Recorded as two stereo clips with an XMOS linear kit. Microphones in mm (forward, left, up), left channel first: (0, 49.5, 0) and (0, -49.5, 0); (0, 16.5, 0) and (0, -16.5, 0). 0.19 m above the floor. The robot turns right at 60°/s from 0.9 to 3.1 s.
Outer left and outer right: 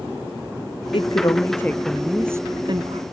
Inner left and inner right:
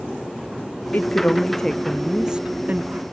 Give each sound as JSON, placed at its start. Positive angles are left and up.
{"t": 0.9, "sound": "a woman speaking", "azimuth_deg": 120}